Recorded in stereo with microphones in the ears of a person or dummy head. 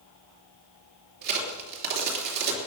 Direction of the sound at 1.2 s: 55° right (ahead or behind).